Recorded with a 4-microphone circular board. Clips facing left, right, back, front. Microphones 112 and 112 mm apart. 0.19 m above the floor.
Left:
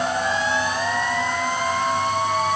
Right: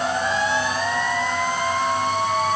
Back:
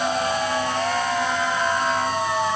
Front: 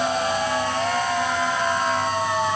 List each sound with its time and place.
Only background noise.